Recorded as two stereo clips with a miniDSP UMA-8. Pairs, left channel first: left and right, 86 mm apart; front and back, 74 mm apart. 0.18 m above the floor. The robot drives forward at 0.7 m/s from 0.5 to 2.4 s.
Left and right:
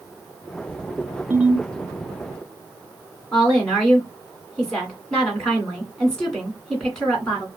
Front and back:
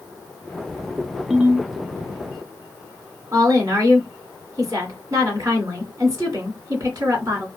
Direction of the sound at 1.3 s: 105° right.